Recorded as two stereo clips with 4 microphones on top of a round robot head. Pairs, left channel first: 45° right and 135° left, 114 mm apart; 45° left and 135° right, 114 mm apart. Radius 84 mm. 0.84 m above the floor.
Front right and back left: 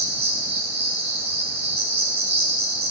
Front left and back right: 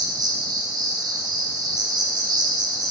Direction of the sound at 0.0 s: 170° left.